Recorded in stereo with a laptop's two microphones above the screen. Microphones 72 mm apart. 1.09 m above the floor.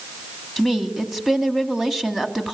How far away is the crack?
I don't hear a crack.